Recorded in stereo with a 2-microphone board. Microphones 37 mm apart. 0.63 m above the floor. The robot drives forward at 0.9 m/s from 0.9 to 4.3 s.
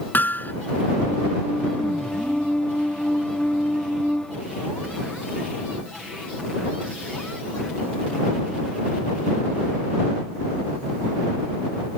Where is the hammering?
60° left (ahead or behind).